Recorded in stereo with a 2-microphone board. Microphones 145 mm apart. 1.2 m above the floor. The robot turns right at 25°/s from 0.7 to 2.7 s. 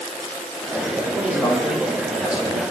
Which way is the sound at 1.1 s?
160° left.